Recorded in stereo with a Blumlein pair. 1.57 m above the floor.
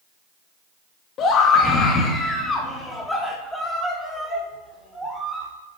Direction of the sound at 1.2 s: 30° left.